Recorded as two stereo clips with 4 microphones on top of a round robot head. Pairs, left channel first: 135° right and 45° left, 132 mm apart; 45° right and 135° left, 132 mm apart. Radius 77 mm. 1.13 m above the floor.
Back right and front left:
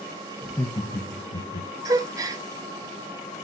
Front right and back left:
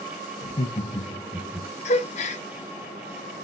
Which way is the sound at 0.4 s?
50° right.